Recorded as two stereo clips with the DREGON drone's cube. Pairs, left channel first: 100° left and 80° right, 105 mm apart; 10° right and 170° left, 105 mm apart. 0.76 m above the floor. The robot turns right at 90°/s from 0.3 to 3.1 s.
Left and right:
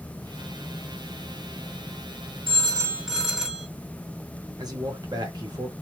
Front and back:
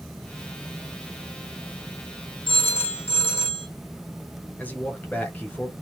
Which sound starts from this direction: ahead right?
A phone ringing, at 2.5 s.